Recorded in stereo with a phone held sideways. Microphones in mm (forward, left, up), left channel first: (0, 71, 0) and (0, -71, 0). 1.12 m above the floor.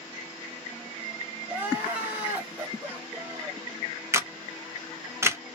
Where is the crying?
10° right (ahead or behind), 1.2 m.